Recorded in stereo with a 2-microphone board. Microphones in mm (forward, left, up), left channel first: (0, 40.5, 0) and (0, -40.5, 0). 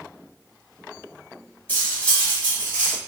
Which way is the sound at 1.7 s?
20° left (ahead or behind).